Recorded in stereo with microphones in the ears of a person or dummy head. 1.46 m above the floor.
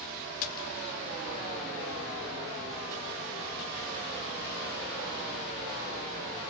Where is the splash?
45° left (ahead or behind), 0.5 m.